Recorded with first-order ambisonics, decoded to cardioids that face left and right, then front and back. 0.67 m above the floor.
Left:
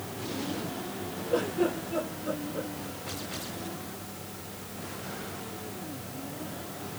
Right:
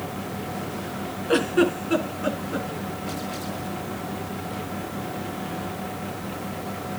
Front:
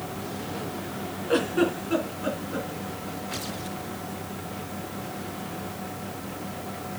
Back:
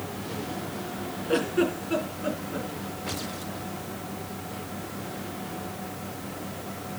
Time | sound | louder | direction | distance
1.3 | a giggle | right 7 dB, front 1 dB | 80° right | 3 m